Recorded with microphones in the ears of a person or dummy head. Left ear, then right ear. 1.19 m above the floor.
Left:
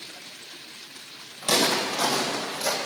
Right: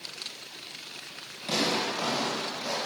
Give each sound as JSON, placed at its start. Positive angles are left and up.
{"t": 1.4, "sound": "footsteps", "side_deg": 45, "distance_m": 3.0}